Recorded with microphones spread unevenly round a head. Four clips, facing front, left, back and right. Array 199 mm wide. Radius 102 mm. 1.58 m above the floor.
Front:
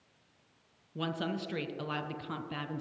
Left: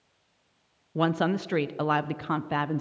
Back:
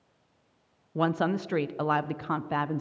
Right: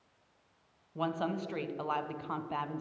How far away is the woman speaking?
About 0.6 m.